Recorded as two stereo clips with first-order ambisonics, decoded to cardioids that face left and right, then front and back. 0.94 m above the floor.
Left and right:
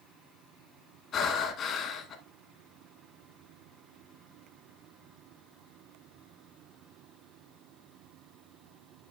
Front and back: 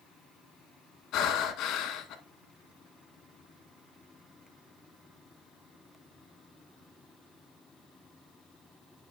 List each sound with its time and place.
1.1 s breathing: 35° left, 1.5 m